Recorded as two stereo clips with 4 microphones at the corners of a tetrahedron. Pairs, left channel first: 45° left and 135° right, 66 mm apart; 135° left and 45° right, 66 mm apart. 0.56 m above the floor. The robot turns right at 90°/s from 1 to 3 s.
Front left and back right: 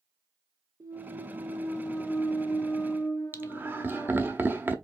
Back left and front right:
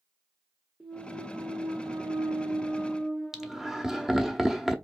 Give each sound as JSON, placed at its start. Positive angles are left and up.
{"t": 0.8, "sound": "a clunk", "azimuth_deg": -135, "distance_m": 1.2}
{"t": 3.3, "sound": "laughter", "azimuth_deg": -120, "distance_m": 0.8}